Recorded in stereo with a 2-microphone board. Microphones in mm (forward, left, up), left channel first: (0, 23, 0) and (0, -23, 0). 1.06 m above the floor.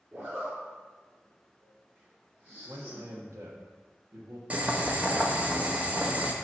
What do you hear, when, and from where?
0.1 s a zipper: 35° right (ahead or behind), 3 m
2.6 s a man speaking: 85° right, 1.2 m
4.5 s boiling: 30° right (ahead or behind), 0.8 m